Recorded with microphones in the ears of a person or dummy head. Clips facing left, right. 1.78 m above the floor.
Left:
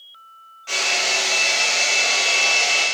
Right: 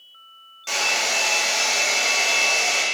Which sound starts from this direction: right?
A hair dryer, at 0.7 s.